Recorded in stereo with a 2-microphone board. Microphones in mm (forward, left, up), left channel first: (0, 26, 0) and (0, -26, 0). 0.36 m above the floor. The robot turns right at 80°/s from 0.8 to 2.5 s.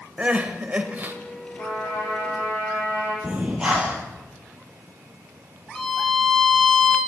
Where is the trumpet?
75° left, 4.5 m; by 3.1 s 150° left, 4.5 m.